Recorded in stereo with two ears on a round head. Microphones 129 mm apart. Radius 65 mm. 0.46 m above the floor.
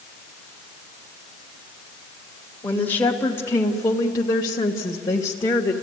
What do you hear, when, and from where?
2.6 s a woman speaking: 10° left (ahead or behind), 1.9 m; by 5.7 s 30° left (ahead or behind), 1.4 m